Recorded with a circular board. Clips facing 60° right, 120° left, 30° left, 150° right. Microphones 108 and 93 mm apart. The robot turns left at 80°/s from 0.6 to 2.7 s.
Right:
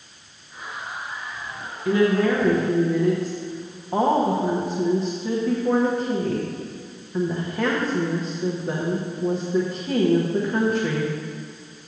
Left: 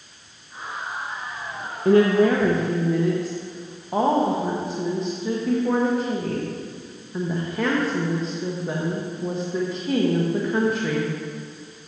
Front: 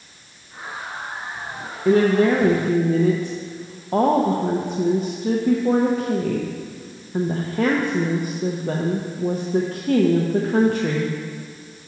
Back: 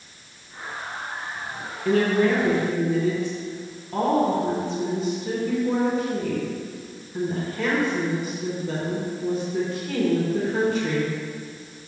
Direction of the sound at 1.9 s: 100° left.